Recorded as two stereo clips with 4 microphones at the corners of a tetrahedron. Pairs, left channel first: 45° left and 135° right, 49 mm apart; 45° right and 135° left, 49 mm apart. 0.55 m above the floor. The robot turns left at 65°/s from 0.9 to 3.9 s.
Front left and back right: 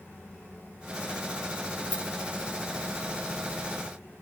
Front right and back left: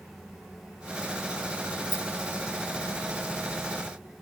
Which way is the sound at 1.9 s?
10° right.